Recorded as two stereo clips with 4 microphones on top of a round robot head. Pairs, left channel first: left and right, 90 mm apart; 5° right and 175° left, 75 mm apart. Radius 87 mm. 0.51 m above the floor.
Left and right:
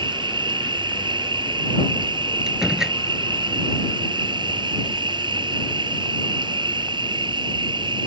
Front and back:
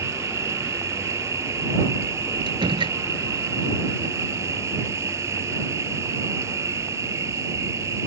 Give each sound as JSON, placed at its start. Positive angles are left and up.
{"t": 0.0, "sound": "an insect", "azimuth_deg": -125}
{"t": 2.5, "sound": "a door slam", "azimuth_deg": -175}